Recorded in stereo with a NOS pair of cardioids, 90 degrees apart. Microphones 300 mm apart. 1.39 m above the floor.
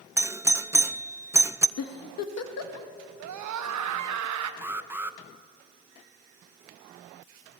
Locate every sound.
0.2 s a doorbell: 10° right, 0.5 m
1.8 s a giggle: 60° left, 2 m
3.2 s a scream: 70° right, 1.8 m
4.6 s an alarm: 5° right, 1.0 m